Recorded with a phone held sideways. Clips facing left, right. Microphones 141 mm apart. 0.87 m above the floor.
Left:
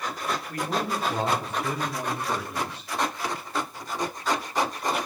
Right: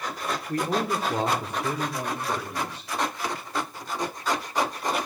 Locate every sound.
0.5 s a man speaking: 35° right (ahead or behind), 1.9 m; by 2.9 s 5° right (ahead or behind), 4 m